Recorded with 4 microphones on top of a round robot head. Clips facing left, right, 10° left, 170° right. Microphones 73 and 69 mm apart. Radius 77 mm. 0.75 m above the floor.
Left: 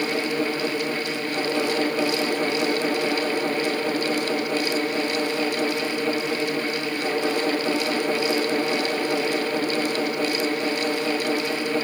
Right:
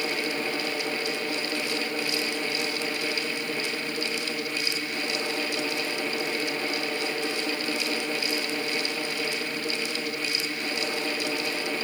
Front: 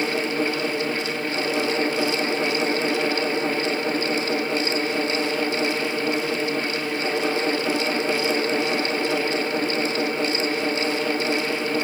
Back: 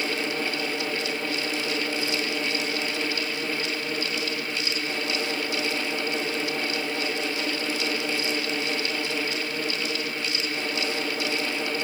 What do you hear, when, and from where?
Only background noise.